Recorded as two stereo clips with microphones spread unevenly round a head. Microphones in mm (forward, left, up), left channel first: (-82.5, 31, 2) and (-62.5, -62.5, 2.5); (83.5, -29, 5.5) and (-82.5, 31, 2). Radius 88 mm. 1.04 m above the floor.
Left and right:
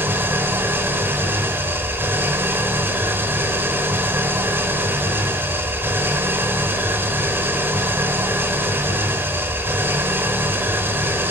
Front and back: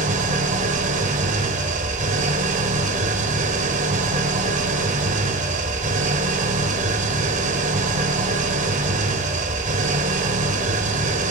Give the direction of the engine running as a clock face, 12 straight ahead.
5 o'clock.